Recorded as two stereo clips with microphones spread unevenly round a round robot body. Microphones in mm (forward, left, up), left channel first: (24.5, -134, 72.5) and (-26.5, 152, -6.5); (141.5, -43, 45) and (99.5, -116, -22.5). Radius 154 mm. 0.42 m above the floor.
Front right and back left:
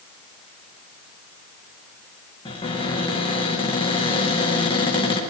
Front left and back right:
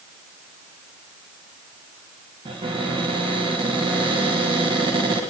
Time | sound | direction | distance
2.5 | a cupboard door | 155° right | 4 m